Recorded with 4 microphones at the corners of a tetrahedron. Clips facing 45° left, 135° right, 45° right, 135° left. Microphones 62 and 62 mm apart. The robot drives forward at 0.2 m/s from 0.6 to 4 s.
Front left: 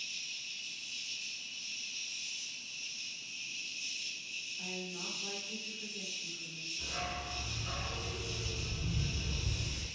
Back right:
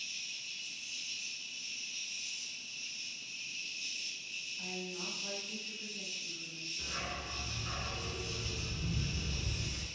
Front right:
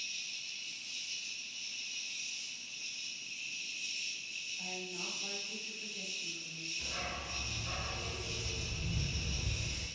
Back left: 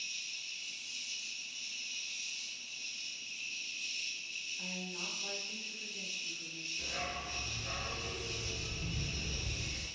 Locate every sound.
0.0 s an insect: 60° right, 0.9 m; by 10.0 s 125° right, 0.9 m
4.6 s a woman speaking: straight behind, 1.2 m
6.8 s a dog barking: 170° left, 0.6 m